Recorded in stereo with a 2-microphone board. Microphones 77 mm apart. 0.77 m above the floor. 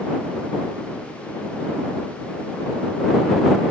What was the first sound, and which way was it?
Only background noise.